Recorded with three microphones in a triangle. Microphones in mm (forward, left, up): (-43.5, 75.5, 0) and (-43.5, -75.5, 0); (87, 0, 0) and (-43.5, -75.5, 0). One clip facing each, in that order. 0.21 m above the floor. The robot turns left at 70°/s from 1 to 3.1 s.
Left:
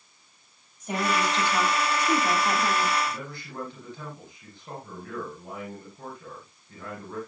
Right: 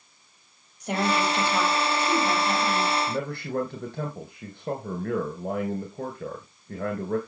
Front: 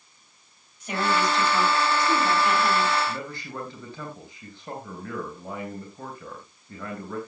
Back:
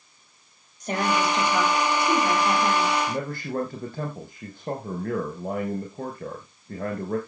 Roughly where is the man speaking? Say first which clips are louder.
Right 8 dB, back 5 dB; right.